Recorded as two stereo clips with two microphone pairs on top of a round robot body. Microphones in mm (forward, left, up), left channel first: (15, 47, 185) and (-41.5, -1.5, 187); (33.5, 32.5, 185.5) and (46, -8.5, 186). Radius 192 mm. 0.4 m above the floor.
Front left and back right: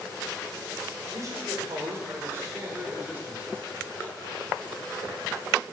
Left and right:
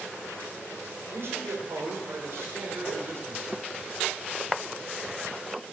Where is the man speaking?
100° right, 2.5 m; by 3.6 s 65° right, 2 m.